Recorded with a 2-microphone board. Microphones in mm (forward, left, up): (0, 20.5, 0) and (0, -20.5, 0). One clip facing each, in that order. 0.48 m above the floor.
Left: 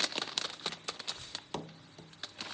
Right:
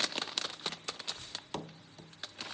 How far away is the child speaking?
About 3.5 m.